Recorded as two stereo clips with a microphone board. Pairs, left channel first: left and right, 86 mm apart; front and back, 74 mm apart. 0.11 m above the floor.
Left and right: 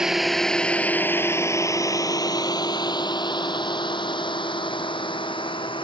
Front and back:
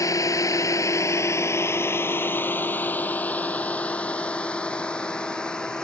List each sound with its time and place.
0.0 s a drone: 10° right; by 5.8 s 80° left